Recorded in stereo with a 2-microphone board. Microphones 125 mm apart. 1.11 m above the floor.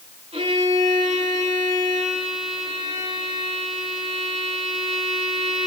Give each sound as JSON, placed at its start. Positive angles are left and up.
{"t": 0.3, "sound": "a violin", "side_deg": -50, "distance_m": 8.0}